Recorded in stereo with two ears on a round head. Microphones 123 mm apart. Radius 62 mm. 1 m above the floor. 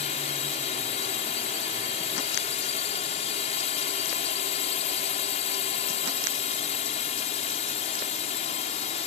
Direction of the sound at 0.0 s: 45° left (ahead or behind).